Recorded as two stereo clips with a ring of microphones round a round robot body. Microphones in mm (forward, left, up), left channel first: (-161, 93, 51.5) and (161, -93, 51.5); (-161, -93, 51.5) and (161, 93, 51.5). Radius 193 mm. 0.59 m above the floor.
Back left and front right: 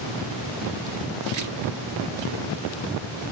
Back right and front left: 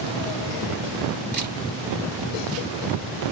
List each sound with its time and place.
1.3 s a camera shutter: 35° right, 2.5 m